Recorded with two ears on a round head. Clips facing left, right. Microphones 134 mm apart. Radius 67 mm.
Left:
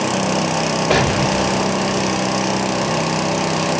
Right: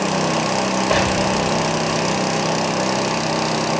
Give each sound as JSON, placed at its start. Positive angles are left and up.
{"t": 0.9, "sound": "an explosion", "side_deg": 75, "distance_m": 2.0}